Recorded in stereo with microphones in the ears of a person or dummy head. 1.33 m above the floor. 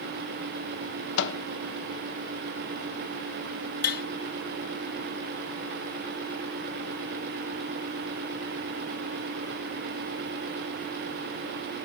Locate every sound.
1.2 s a microwave: 65° left (ahead or behind), 1.0 m
3.8 s tapping: 50° left (ahead or behind), 0.9 m